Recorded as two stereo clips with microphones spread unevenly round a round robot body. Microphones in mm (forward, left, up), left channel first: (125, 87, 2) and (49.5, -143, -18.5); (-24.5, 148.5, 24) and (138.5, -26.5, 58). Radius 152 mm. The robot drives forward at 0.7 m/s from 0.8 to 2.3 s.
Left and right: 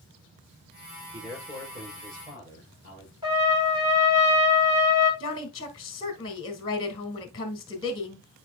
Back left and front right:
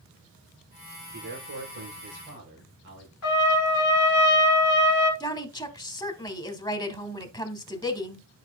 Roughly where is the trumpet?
Behind.